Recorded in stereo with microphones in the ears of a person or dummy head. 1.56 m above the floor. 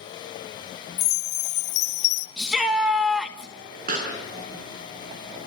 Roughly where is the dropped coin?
No dropped coin in this recording.